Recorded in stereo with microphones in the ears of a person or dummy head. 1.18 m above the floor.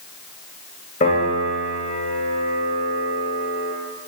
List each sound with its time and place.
1.0 s a piano: 40° left (ahead or behind), 8.5 m